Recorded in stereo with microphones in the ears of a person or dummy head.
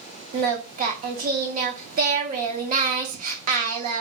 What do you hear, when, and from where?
0.3 s singing: 45° right (ahead or behind), 0.8 m